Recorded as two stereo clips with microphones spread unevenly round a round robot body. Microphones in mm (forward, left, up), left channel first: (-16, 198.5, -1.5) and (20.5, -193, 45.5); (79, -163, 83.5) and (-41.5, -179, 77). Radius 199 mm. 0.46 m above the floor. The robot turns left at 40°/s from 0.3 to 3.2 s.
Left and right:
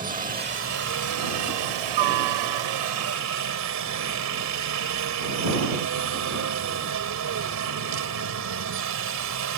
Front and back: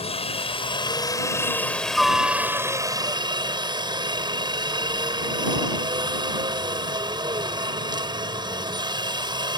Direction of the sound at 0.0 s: 15° right.